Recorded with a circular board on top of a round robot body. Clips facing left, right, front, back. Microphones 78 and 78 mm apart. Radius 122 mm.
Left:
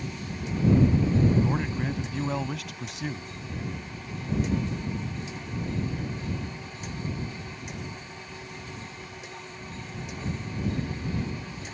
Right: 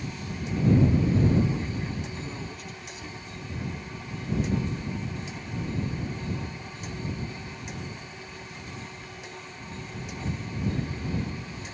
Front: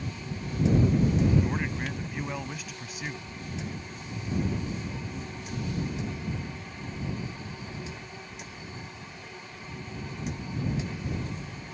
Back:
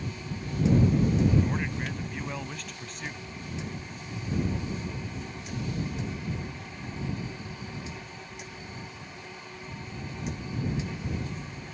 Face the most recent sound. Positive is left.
turn(degrees=80)